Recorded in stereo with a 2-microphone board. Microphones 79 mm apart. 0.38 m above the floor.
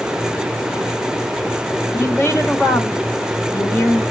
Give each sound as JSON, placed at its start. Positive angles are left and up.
{"t": 1.9, "sound": "a woman speaking", "side_deg": 30, "distance_m": 1.3}